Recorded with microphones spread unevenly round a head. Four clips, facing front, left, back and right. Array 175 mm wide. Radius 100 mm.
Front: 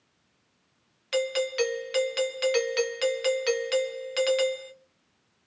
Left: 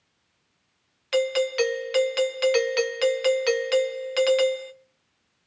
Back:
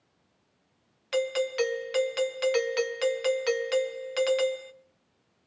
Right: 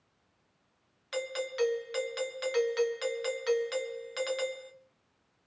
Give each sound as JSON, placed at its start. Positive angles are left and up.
{"t": 1.1, "sound": "a doorbell", "azimuth_deg": 85, "distance_m": 1.9}